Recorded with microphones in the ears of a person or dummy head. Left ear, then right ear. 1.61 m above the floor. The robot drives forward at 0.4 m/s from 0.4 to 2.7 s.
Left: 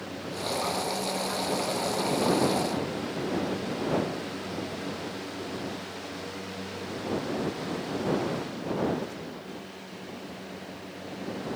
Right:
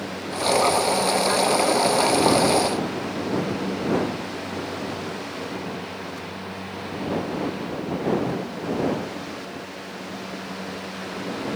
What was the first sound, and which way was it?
Only background noise.